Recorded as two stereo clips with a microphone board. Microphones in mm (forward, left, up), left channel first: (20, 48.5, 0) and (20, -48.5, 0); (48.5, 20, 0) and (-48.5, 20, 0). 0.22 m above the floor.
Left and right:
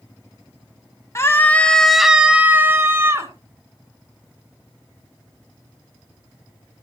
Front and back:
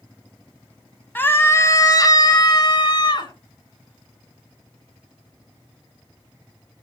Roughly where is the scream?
Ahead left.